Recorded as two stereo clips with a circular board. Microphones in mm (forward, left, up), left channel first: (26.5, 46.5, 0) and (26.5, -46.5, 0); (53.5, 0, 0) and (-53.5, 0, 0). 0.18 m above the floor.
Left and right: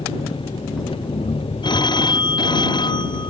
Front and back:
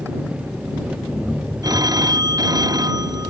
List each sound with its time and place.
0.0 s an engine running: 100° left
1.6 s a phone ringing: 125° left